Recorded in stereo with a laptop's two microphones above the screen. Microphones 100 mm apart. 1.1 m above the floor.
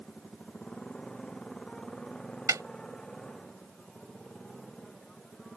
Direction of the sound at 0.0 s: 5° left (ahead or behind).